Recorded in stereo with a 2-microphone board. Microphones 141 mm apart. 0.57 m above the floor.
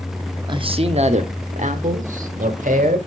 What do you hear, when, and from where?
0.5 s a man speaking: 35° right (ahead or behind), 0.8 m; by 3.0 s 70° right (ahead or behind), 2 m